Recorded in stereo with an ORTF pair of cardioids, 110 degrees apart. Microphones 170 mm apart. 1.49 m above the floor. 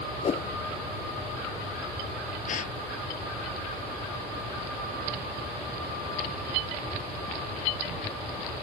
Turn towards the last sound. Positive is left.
turn(degrees=50)